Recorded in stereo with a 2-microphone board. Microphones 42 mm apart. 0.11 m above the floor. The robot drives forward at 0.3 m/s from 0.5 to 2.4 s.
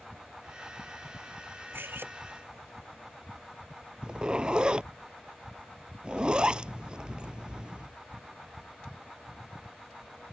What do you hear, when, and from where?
1.7 s cutlery clinking: 65° right (ahead or behind)
4.0 s a zipper: 25° right (ahead or behind)